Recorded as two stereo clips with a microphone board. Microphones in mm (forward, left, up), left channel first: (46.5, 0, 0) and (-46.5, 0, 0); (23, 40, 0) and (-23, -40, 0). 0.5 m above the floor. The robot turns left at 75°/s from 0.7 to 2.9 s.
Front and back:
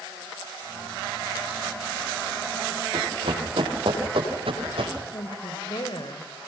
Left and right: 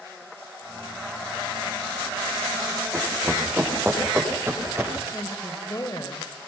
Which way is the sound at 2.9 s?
175° left.